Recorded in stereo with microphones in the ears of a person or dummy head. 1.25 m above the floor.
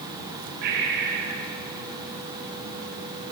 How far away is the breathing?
About 2.5 m.